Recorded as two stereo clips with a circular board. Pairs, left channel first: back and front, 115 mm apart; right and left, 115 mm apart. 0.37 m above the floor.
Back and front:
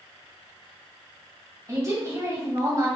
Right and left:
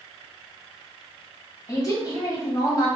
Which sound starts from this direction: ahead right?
A woman speaking, at 1.7 s.